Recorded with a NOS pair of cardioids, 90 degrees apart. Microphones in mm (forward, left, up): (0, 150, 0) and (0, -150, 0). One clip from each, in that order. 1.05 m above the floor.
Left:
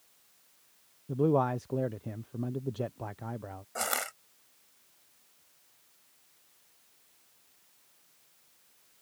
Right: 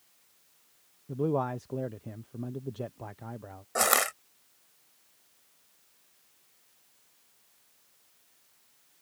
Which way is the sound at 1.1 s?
10° left.